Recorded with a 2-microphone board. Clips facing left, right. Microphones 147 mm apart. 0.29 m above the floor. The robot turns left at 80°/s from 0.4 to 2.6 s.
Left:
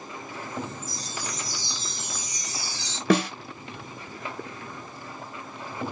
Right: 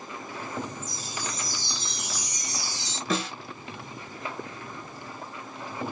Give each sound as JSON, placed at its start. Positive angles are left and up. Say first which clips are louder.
{"t": 0.8, "sound": "a chime", "louder": "even", "azimuth_deg": 10, "distance_m": 0.7}
{"t": 3.1, "sound": "a snare drum", "louder": "left 8 dB", "side_deg": 70, "distance_m": 0.8}